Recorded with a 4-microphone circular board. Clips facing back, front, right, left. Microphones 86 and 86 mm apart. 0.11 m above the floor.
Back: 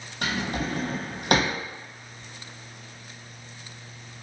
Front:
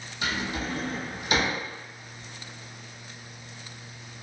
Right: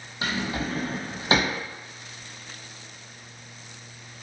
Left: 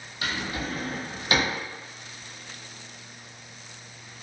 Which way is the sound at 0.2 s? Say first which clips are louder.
Back 2 dB, right 3 dB; 150° right.